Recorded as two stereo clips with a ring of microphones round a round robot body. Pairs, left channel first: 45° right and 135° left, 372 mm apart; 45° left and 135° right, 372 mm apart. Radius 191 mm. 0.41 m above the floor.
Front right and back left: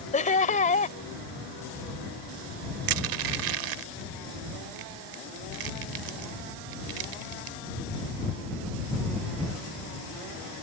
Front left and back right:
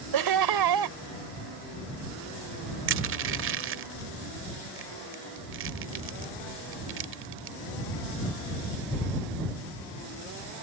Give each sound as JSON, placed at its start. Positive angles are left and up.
{"t": 0.1, "sound": "laughter", "azimuth_deg": -115}
{"t": 2.9, "sound": "crushing", "azimuth_deg": 165}